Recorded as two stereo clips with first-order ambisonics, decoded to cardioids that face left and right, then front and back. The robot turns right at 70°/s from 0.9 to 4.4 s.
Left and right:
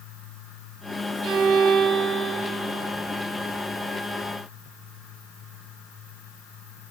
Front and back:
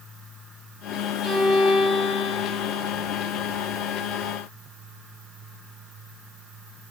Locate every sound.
1.2 s a violin: 75° right, 0.8 m; by 2.8 s 35° left, 0.8 m